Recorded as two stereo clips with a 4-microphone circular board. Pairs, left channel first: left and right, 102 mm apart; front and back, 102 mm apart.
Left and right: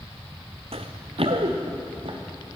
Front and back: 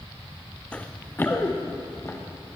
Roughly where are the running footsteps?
Right.